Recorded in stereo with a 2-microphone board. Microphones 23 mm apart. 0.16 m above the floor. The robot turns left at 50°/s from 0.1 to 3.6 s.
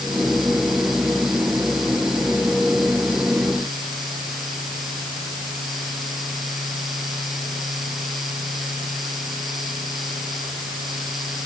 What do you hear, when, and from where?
Only background noise.